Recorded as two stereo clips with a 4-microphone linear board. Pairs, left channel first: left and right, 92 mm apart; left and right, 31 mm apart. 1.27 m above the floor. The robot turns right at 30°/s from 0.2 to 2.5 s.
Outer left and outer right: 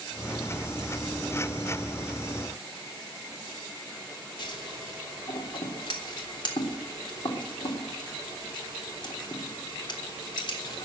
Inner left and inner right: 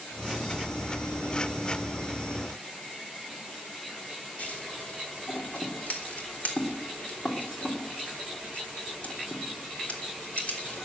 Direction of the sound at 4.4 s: 55° left (ahead or behind).